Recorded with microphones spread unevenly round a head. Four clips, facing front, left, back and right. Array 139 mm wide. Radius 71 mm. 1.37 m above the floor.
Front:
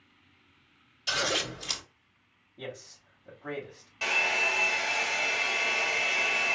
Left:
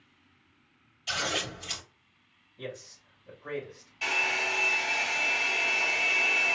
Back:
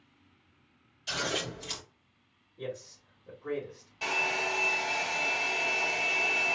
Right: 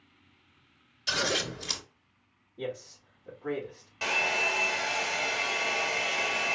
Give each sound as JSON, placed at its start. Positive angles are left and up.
{"t": 1.1, "sound": "scissors", "azimuth_deg": -50, "distance_m": 3.5}
{"t": 2.6, "sound": "a man speaking", "azimuth_deg": -35, "distance_m": 3.0}
{"t": 4.0, "sound": "a hair dryer", "azimuth_deg": -55, "distance_m": 1.5}